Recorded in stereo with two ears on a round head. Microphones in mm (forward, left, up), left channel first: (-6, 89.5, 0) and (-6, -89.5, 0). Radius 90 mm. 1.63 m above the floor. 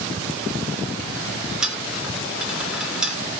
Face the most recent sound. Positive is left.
turn(degrees=-5)  # may be behind; listen again after turning